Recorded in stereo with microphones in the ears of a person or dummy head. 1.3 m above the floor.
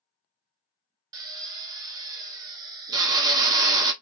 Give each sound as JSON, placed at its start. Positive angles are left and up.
{"t": 1.1, "sound": "a drill", "side_deg": -20, "distance_m": 0.5}